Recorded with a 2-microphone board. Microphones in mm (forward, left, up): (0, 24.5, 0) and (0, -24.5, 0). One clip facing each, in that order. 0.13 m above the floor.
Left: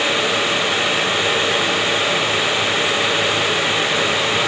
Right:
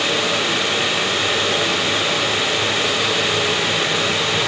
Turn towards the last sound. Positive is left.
No sound to turn to.